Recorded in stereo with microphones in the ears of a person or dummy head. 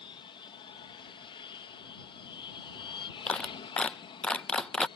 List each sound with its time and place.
0.0 s an aircraft: 25° left (ahead or behind)
3.3 s a clap: 5° left (ahead or behind)